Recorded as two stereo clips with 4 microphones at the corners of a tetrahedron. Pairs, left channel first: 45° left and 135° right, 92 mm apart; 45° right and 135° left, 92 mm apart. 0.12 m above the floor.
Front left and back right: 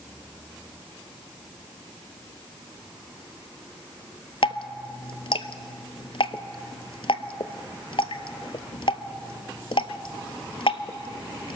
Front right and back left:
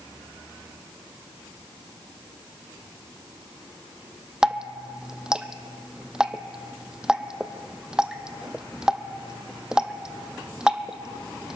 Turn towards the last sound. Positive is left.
turn(degrees=55)